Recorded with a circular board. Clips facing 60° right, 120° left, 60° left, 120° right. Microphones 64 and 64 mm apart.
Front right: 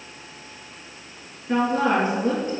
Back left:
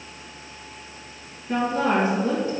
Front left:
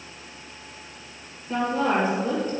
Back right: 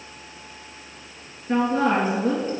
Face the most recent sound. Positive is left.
turn(degrees=-105)